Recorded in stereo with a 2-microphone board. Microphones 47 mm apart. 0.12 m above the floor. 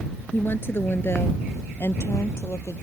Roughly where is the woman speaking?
Left.